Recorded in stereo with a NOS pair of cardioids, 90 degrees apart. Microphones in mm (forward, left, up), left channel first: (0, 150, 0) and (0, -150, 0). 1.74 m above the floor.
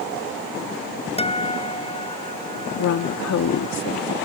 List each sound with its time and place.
1.2 s a guitar: 20° left
2.8 s a woman speaking: 65° left